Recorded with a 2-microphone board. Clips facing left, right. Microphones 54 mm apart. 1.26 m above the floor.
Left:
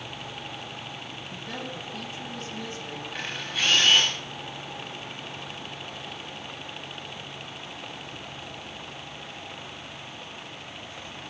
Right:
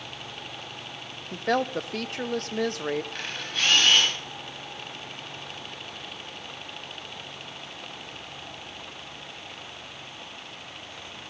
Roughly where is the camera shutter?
Centre.